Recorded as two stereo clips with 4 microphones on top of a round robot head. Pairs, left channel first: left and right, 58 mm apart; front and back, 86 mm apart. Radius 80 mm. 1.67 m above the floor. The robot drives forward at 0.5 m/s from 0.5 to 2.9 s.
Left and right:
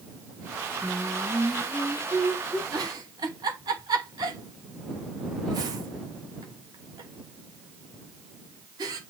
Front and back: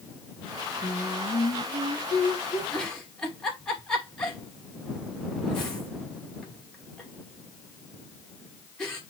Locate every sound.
0.8 s singing: 20° right, 2.5 m; by 2.6 s 25° right, 1.8 m
2.7 s a giggle: 80° right, 2.5 m; by 9.0 s 85° right, 2.5 m